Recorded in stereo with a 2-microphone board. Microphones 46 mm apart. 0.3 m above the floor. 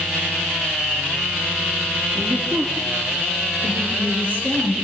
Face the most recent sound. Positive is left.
turn(degrees=-45)  # may be behind; listen again after turning